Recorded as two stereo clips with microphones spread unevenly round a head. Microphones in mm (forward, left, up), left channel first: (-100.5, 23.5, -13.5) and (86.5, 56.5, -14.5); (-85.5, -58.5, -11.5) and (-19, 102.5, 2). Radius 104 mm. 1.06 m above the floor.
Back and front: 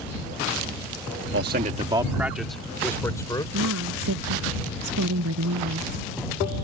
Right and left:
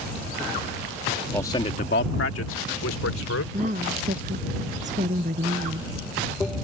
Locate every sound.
1.3 s a man speaking: 30° right; by 3.4 s 95° right
3.5 s a woman speaking: 10° left